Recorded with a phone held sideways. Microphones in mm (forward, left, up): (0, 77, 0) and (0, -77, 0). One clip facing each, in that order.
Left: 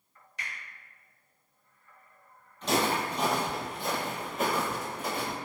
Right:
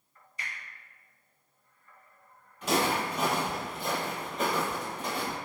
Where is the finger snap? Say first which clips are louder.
Even; 70° left (ahead or behind), 1.0 m.